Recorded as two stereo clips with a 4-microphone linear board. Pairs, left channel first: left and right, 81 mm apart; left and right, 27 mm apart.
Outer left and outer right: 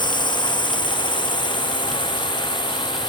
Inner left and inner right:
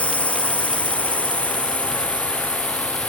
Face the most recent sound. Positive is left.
turn(degrees=85)